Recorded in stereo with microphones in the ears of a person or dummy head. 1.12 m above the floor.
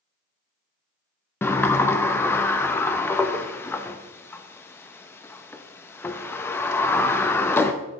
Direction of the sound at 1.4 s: 10° left (ahead or behind).